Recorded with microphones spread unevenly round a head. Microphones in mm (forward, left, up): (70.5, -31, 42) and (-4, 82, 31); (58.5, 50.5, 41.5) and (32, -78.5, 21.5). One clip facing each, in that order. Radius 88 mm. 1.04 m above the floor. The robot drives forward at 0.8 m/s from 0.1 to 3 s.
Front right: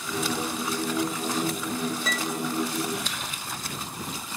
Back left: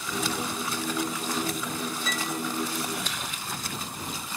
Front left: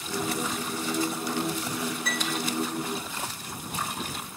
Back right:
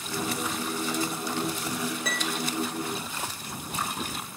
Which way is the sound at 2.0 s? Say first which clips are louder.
Front right 2 dB, front left 1 dB; 115° right.